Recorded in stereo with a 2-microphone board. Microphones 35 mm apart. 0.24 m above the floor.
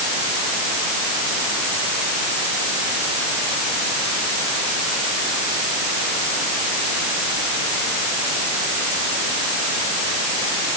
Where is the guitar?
I don't hear a guitar.